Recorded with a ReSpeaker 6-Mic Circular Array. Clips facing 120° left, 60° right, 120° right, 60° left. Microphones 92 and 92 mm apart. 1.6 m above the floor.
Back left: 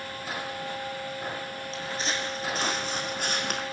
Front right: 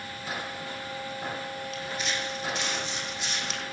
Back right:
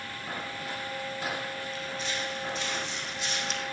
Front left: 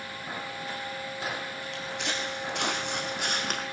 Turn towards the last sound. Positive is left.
turn(degrees=95)